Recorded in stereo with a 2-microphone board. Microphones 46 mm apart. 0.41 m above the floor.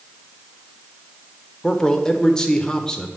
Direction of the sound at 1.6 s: 15° left (ahead or behind).